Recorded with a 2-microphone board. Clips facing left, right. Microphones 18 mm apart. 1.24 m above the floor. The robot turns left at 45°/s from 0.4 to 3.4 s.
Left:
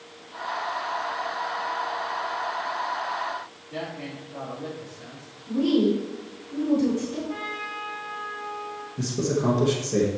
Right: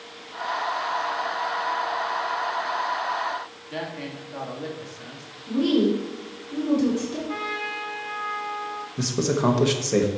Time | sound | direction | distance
3.7 | a man speaking | 80° right | 3 m
5.5 | a woman speaking | 50° right (ahead or behind) | 3 m
7.3 | a trumpet | 55° right (ahead or behind) | 2.5 m
9.0 | a man speaking | 65° right (ahead or behind) | 1.1 m